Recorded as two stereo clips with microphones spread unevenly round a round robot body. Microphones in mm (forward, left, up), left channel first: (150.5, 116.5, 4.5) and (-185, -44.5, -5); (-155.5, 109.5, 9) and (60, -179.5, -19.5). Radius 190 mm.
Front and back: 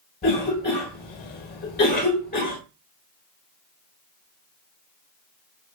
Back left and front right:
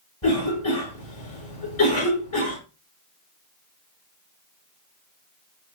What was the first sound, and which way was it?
A cough, 85° left.